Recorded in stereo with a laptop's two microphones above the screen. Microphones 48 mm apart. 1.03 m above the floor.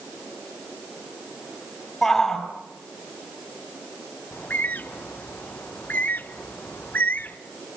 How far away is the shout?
About 6.5 m.